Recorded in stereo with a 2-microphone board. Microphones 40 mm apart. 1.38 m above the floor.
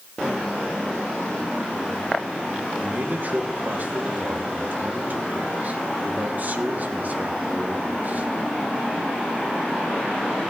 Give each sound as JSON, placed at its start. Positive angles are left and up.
{"t": 2.8, "sound": "a man speaking", "side_deg": -45, "distance_m": 1.5}